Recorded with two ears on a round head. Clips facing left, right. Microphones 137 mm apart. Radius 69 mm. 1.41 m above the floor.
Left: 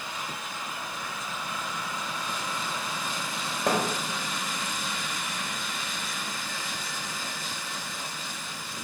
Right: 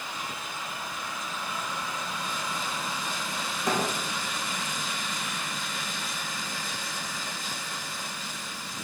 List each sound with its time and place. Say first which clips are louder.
3.7 s a thud: left 2 dB; 60° left (ahead or behind), 3 m